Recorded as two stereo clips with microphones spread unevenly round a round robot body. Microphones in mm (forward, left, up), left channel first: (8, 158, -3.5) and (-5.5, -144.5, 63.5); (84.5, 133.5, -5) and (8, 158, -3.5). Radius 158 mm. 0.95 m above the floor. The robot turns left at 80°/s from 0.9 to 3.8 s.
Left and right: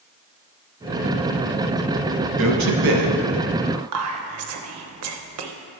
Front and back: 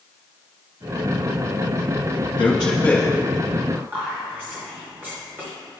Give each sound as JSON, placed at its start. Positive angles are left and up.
{"t": 2.4, "sound": "a man speaking", "azimuth_deg": -40, "distance_m": 0.9}
{"t": 3.7, "sound": "whispering", "azimuth_deg": -125, "distance_m": 0.6}